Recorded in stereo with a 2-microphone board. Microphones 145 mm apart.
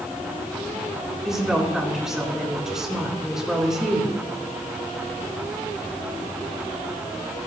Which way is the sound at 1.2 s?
5° right (ahead or behind).